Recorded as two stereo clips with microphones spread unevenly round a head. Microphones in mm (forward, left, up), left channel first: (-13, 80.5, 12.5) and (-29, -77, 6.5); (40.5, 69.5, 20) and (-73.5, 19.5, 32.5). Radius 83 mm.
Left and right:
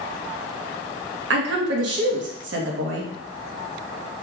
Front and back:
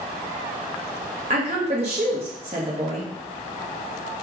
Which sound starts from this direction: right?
A woman speaking, at 1.3 s.